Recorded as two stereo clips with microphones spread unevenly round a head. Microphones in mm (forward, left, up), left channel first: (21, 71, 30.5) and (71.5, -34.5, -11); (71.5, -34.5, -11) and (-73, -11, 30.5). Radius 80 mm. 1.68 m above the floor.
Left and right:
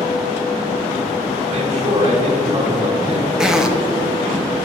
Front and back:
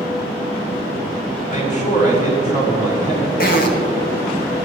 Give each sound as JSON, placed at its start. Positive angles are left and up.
{"t": 1.5, "sound": "a man speaking", "azimuth_deg": -45, "distance_m": 4.0}
{"t": 3.4, "sound": "a zipper", "azimuth_deg": 30, "distance_m": 1.0}